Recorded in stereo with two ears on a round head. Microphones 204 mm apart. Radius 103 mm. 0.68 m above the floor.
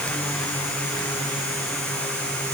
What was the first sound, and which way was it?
Only background noise.